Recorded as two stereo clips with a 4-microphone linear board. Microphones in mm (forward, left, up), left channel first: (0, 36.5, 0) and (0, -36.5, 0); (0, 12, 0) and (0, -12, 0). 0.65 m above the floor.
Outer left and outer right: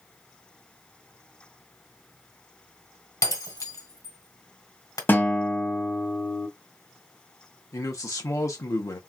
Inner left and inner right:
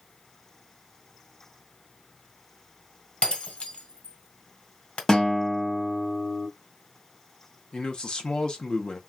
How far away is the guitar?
About 0.8 m.